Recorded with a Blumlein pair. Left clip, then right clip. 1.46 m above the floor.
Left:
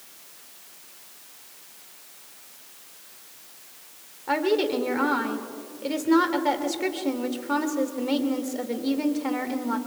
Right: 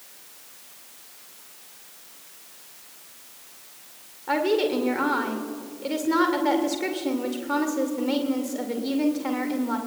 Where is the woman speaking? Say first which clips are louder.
Right 1 dB; straight ahead, 2 m.